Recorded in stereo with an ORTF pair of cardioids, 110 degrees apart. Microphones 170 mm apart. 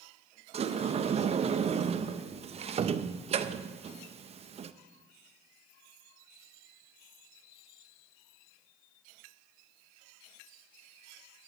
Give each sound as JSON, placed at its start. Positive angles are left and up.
{"t": 0.5, "sound": "a sliding door", "azimuth_deg": -40, "distance_m": 0.6}